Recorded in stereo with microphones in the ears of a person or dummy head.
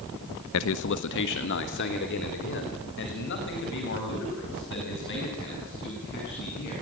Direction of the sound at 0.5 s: 70° left (ahead or behind).